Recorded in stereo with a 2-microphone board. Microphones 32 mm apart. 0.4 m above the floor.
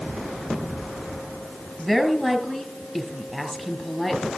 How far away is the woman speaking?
About 2 m.